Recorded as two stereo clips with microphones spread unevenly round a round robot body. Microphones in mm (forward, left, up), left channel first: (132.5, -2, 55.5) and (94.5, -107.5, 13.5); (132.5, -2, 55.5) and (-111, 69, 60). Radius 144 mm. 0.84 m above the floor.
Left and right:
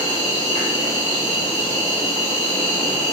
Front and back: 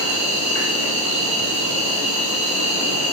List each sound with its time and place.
0.0 s an insect: 130° right, 1.5 m